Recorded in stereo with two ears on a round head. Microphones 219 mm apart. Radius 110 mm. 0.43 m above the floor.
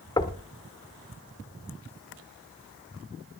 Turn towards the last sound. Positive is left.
turn(degrees=15)  # may be behind; listen again after turning